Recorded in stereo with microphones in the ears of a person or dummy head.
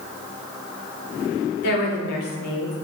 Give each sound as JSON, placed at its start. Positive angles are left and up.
{"t": 1.6, "sound": "a woman speaking", "side_deg": 70, "distance_m": 0.8}